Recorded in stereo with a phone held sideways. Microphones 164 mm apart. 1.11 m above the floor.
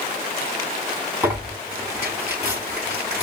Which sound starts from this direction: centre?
Tearing paper, at 1.2 s.